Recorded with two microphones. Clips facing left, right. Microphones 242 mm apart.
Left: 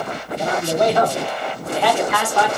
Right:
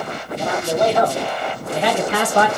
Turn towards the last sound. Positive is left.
turn(degrees=-55)  # may be behind; listen again after turning